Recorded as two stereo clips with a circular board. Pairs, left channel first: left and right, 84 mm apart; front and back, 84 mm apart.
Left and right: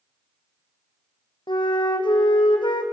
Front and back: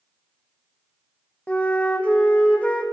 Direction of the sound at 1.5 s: 75° left.